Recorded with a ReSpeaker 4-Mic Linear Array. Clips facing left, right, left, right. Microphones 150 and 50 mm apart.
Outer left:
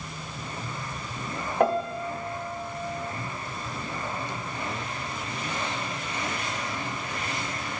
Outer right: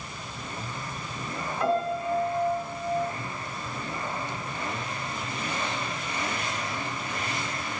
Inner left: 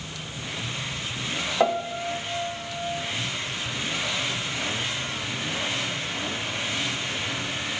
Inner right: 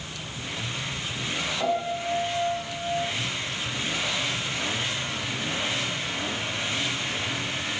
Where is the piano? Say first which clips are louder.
Outer left 2 dB, inner left 4 dB; 60° left (ahead or behind), 1.2 m.